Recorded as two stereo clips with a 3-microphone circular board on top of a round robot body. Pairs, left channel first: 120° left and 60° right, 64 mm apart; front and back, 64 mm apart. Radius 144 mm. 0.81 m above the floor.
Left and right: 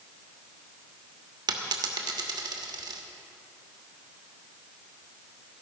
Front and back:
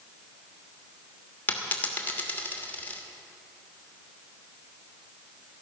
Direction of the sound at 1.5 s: 65° right.